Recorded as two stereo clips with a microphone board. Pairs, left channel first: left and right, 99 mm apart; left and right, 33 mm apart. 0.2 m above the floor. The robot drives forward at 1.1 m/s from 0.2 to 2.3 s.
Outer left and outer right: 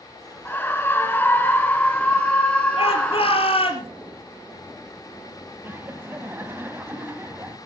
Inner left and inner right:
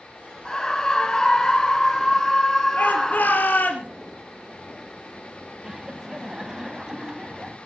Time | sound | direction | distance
0.5 | a scream | 20° left (ahead or behind) | 1.3 m
2.8 | a shout | 70° left (ahead or behind) | 3.5 m
5.6 | laughter | 20° right (ahead or behind) | 1.0 m